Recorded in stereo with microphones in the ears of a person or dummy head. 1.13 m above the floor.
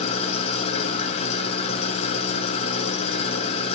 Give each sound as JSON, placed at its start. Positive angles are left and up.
{"t": 0.0, "sound": "an engine running", "side_deg": 30, "distance_m": 1.0}